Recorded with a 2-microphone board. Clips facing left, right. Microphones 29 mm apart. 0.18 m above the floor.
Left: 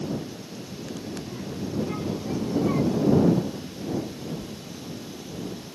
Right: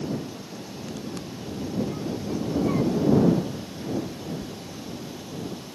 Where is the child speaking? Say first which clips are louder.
Even; 50° left (ahead or behind); by 5.7 s 35° right (ahead or behind).